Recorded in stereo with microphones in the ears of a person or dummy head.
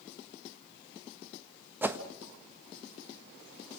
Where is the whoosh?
15° right (ahead or behind), 1.3 m.